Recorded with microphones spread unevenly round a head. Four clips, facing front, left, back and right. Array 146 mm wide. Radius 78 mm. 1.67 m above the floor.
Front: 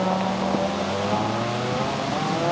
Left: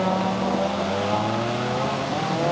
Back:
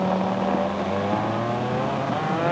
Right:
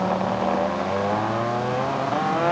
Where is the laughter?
I don't hear laughter.